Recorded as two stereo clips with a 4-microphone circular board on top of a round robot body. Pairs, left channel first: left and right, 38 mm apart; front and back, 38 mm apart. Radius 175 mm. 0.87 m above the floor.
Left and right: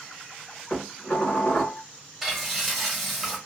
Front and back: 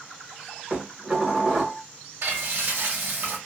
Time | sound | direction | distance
0.7 | dishes clattering | 120° left | 1.2 m
2.2 | frying | straight behind | 1.4 m